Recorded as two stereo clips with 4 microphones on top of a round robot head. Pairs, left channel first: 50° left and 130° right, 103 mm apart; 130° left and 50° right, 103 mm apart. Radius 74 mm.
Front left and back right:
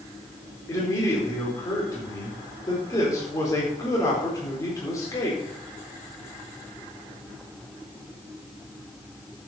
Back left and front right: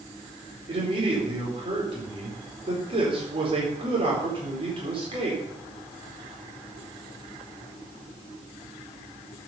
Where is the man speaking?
10° right, 4 m.